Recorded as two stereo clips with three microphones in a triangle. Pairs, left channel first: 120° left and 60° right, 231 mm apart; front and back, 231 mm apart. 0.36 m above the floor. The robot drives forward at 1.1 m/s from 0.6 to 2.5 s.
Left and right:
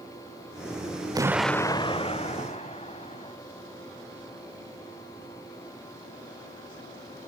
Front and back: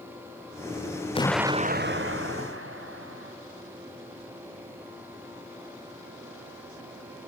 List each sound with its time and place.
1.1 s an explosion: 10° right, 0.5 m; by 3.4 s straight behind, 1.3 m